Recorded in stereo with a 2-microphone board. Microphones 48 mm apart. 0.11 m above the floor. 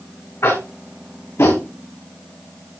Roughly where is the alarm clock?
I don't hear an alarm clock.